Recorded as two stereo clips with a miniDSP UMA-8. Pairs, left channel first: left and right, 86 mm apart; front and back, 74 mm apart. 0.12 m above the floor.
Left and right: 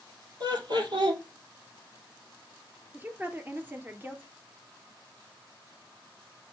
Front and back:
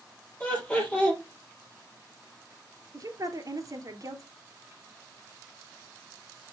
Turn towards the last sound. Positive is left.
turn(degrees=-155)